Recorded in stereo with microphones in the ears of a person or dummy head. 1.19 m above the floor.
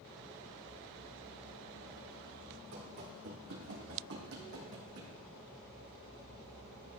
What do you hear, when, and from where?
2.7 s running footsteps: 60° right (ahead or behind), 4.5 m